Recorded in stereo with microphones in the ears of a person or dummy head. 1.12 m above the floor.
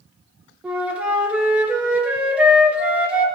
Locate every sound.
0.6 s a flute: 10° right (ahead or behind), 0.9 m